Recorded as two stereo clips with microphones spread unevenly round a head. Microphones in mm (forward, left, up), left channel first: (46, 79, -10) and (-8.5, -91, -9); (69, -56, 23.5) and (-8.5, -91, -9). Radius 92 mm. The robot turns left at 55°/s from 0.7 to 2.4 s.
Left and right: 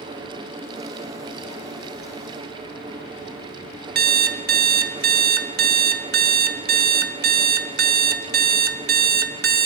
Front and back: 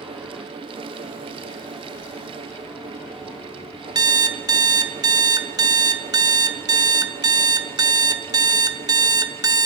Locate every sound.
4.0 s an alarm clock: 105° right, 1.3 m